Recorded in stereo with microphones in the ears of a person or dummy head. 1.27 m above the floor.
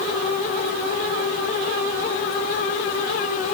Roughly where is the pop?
I don't hear a pop.